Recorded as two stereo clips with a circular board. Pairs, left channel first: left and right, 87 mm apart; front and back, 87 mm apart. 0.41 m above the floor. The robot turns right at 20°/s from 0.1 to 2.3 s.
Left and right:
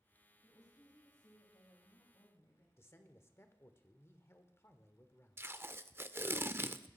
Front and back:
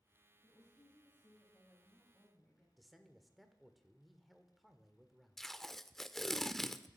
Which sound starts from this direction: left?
A man speaking, at 2.8 s.